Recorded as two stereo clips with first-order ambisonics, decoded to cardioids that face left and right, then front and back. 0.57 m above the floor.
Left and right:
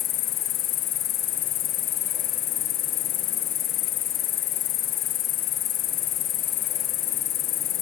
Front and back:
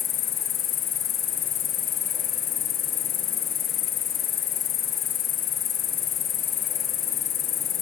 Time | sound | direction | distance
0.0 | an insect | 50° left | 2.5 m